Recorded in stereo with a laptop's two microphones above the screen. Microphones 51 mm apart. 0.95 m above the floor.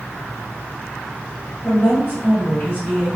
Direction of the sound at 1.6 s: 35° left (ahead or behind).